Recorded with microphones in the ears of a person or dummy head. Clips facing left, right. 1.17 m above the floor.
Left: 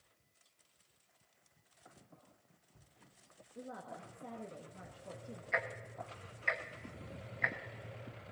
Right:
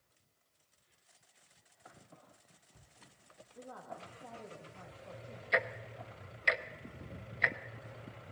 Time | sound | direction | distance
3.5 | a woman speaking | 25° left (ahead or behind) | 1.6 m
5.5 | ticking | 45° right (ahead or behind) | 0.8 m